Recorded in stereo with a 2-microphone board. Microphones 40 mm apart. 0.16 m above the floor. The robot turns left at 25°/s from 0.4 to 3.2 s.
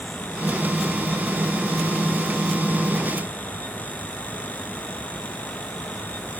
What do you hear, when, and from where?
Only background noise.